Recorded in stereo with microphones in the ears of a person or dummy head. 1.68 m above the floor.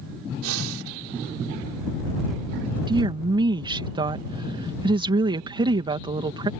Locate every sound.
0.4 s breathing: 75° right (ahead or behind)
2.9 s a woman speaking: 20° right (ahead or behind)